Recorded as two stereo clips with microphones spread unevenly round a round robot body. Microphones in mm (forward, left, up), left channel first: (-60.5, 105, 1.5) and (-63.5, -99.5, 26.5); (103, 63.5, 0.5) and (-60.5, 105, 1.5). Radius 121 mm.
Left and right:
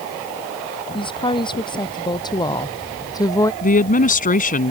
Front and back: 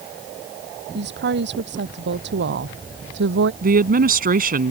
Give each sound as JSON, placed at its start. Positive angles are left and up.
{"t": 0.9, "sound": "a woman speaking", "azimuth_deg": 155}
{"t": 3.6, "sound": "a woman speaking", "azimuth_deg": 135}